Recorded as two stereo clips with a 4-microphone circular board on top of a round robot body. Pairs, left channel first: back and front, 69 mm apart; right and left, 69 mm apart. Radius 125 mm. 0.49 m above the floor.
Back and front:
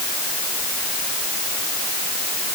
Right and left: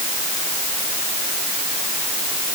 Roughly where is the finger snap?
No finger snap in this recording.